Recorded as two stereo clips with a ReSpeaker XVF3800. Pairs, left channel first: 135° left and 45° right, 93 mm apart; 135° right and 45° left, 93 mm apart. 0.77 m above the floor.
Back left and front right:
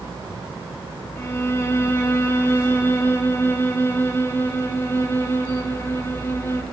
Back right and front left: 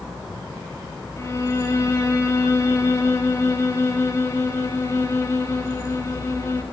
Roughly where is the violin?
Behind.